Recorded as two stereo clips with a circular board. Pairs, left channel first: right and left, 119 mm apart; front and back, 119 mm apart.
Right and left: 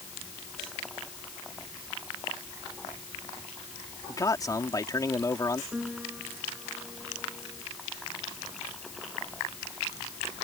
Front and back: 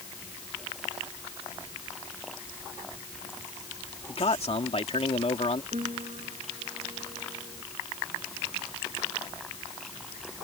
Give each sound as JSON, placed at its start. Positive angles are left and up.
{"t": 4.1, "sound": "a man speaking", "azimuth_deg": -30}
{"t": 5.7, "sound": "a piano", "azimuth_deg": 170}